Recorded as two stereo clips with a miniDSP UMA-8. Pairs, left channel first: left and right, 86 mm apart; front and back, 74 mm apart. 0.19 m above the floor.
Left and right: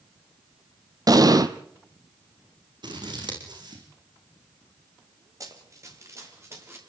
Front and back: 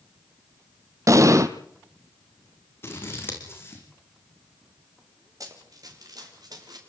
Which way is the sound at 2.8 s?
55° right.